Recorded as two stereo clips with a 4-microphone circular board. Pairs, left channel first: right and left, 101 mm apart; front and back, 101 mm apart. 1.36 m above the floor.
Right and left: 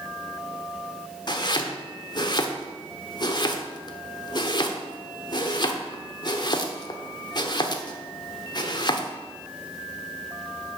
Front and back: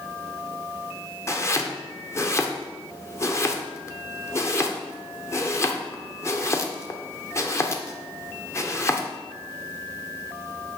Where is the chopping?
55° right, 0.8 m.